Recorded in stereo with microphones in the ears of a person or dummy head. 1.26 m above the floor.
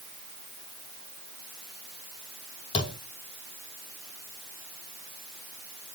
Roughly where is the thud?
Left.